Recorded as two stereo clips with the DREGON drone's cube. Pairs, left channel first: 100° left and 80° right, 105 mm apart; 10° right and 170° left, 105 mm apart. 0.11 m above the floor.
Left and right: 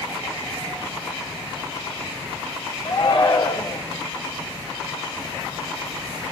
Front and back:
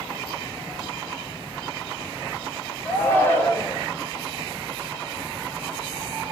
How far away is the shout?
About 5 m.